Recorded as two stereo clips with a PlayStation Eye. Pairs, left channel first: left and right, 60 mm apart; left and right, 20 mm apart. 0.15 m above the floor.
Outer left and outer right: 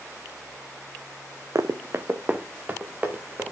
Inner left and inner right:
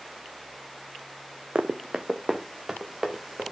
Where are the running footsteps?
55° right (ahead or behind), 0.8 m; by 3.5 s 20° right (ahead or behind), 2.5 m.